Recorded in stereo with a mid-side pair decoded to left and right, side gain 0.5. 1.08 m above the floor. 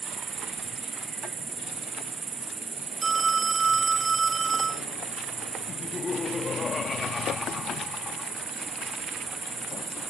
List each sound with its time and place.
0.0 s an insect: 35° right
3.0 s a phone ringing: 30° right
5.7 s laughter: 30° left